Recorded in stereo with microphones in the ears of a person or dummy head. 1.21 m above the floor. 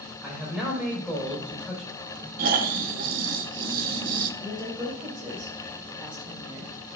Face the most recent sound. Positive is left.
turn(degrees=-25)  # may be behind; listen again after turning